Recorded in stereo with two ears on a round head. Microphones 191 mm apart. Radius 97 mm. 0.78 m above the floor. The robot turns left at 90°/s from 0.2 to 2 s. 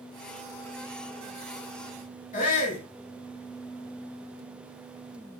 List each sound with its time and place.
2.3 s a shout: 35° left (ahead or behind), 6 m